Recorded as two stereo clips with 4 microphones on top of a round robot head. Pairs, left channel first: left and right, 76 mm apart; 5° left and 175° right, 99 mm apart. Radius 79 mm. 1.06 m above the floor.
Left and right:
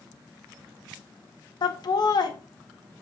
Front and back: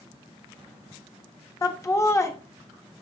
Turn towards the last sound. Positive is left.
turn(degrees=65)